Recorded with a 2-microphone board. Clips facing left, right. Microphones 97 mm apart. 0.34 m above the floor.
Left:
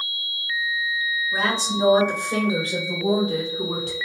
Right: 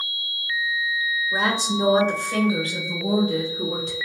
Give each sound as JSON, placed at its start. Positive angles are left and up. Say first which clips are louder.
{"t": 1.3, "sound": "a woman speaking", "louder": "right 1 dB", "side_deg": -30, "distance_m": 1.1}